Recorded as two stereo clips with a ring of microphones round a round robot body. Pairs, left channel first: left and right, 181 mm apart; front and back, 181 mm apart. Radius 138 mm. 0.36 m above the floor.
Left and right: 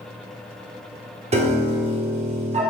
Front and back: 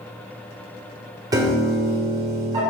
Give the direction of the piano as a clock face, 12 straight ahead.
4 o'clock.